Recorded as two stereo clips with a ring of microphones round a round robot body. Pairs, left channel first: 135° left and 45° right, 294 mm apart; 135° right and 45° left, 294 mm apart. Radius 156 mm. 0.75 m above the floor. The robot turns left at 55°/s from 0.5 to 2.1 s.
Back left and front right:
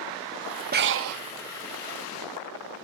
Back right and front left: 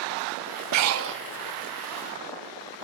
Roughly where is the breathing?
Ahead.